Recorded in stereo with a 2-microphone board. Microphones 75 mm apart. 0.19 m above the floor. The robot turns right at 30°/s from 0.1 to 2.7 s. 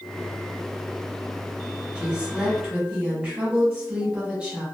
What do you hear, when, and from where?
1.9 s a woman speaking: 15° right (ahead or behind), 1.2 m